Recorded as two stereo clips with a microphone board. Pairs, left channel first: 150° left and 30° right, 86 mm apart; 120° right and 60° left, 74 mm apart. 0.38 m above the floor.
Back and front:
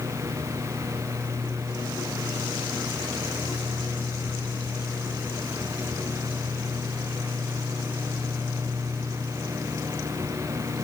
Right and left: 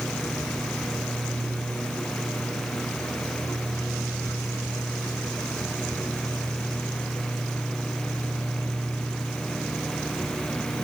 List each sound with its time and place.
Only background noise.